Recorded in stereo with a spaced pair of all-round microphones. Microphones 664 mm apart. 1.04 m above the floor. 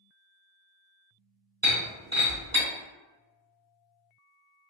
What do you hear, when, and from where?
1.6 s breaking glass: 25° right (ahead or behind), 1.9 m